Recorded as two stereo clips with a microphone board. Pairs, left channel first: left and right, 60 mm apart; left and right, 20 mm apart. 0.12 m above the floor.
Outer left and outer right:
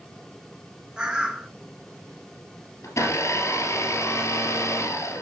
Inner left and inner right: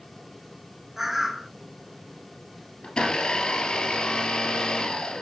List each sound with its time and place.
1.0 s a bird: 15° right (ahead or behind), 1.5 m
2.8 s a blender: 60° left (ahead or behind), 2 m